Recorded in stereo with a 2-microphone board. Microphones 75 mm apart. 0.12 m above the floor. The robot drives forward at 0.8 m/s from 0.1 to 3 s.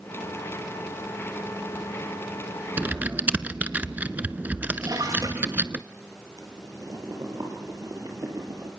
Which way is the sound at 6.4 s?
50° right (ahead or behind).